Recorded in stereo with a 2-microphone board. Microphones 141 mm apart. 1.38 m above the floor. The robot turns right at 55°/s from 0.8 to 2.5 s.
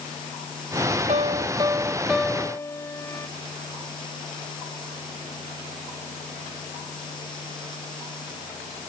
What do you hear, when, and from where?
1.1 s a piano: 60° right; by 3.3 s 20° left